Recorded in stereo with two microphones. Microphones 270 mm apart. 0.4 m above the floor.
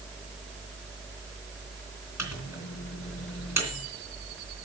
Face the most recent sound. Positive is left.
turn(degrees=65)  # may be behind; listen again after turning